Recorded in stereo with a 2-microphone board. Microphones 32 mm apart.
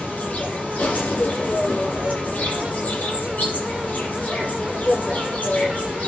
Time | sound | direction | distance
0.0 | an insect | 50° left (ahead or behind) | 6.5 m